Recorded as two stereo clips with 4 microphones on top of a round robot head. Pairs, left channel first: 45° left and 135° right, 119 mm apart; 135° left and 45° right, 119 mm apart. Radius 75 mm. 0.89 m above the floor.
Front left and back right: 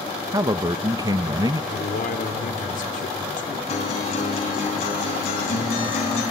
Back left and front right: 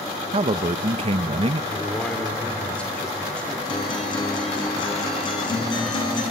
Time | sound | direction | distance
0.3 | a man speaking | 80° right | 0.6 m
1.7 | a man speaking | 55° left | 2 m
3.7 | a guitar | 80° left | 4.5 m